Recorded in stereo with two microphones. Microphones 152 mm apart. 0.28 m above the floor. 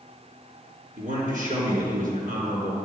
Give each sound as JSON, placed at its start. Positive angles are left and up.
{"t": 1.0, "sound": "a man speaking", "side_deg": -60, "distance_m": 3.5}